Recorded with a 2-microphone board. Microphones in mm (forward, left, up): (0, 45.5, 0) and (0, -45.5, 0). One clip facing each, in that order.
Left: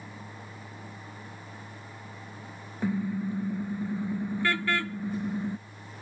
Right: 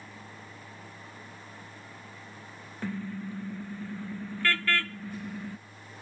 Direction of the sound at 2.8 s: 15° left (ahead or behind).